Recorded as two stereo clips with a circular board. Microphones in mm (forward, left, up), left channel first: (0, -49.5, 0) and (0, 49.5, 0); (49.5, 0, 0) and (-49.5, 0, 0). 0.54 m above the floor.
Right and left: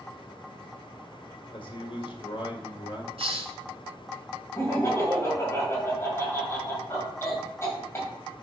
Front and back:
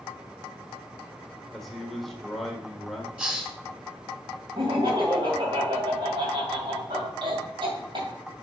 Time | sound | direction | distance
1.5 | a man speaking | 90° right | 1.7 m
3.2 | a hiss | 105° left | 1.4 m
4.5 | laughter | 155° right | 2.5 m